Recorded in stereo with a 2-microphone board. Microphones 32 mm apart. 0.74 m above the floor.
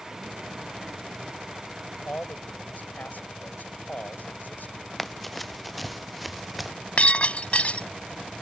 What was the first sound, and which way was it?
A man speaking, 70° left (ahead or behind).